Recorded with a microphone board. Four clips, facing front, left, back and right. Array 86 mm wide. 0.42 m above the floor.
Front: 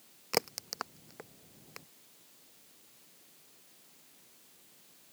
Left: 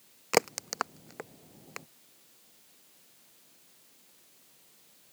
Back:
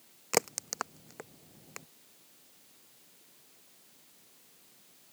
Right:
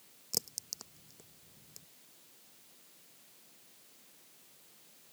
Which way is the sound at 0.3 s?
100° left.